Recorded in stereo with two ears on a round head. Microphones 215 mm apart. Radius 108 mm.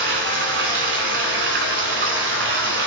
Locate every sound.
0.0 s running water: 50° right (ahead or behind), 0.9 m